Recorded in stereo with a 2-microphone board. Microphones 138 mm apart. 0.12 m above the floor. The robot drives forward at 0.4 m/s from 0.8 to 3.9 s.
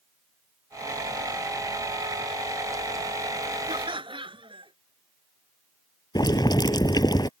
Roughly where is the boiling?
Left.